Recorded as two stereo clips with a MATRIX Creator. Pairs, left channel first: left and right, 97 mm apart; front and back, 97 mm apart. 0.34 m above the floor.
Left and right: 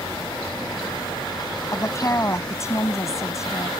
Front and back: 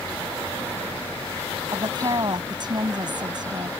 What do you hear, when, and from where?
1.7 s a woman speaking: 145° left